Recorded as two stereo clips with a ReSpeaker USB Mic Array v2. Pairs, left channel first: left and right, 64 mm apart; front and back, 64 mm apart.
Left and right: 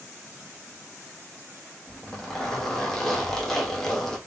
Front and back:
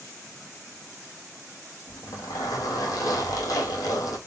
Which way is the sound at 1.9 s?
10° left.